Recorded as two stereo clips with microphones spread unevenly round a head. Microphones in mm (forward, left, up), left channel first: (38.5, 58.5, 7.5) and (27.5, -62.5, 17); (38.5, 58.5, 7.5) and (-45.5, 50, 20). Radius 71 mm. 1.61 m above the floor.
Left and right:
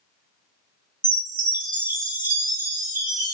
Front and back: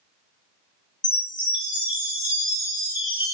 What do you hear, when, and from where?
1.0 s a chime: 35° right, 1.6 m